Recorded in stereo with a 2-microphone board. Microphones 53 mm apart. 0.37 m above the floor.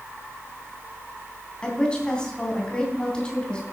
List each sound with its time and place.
1.6 s a woman speaking: 15° left (ahead or behind), 3 m